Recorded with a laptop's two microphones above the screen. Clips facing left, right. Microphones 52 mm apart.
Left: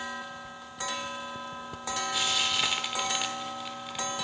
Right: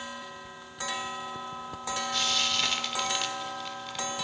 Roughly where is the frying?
Centre.